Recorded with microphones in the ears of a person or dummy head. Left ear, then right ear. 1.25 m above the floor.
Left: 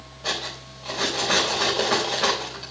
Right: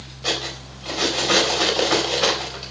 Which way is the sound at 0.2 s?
15° right (ahead or behind).